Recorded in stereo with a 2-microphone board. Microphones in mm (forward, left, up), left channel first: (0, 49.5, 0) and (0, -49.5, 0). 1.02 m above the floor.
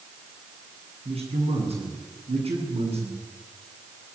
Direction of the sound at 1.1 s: 80° right.